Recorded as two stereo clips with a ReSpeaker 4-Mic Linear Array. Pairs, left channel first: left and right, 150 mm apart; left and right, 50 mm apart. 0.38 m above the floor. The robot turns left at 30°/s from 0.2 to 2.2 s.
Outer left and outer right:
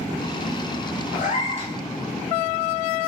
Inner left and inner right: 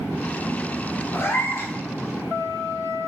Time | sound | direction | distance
1.1 | a cat meowing | 60° left (ahead or behind) | 0.6 m